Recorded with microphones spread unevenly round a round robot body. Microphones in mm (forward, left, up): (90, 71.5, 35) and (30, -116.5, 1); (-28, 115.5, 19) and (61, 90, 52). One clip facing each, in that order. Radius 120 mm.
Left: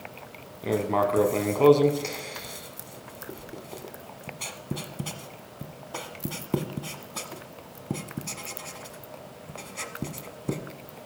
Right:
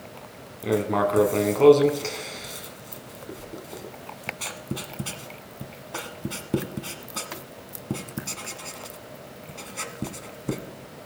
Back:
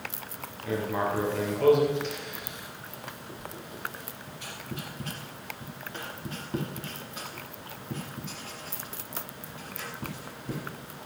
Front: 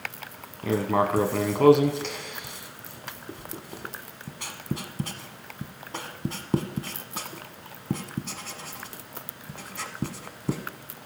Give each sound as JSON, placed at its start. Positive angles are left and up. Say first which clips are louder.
{"t": 0.6, "sound": "writing", "louder": "right 2 dB, front 5 dB", "azimuth_deg": -20, "distance_m": 1.1}